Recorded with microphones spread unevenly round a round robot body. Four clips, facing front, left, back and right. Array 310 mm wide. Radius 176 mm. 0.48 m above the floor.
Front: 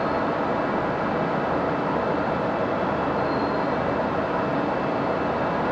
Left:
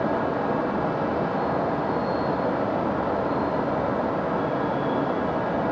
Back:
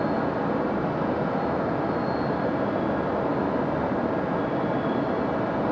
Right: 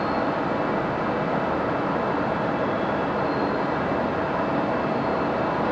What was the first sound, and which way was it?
Only background noise.